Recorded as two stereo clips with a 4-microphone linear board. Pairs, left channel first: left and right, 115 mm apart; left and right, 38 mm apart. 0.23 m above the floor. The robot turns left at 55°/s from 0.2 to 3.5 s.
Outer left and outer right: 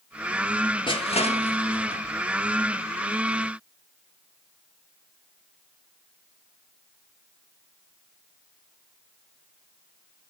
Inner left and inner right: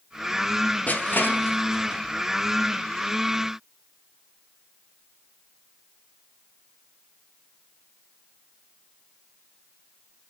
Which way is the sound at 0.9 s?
45° left (ahead or behind).